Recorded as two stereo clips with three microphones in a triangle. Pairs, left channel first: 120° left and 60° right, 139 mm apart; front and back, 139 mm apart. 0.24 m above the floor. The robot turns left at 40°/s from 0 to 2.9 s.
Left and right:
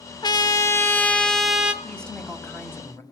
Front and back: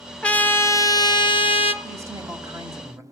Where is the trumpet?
80° left, 0.6 m; by 1.7 s 20° left, 0.6 m.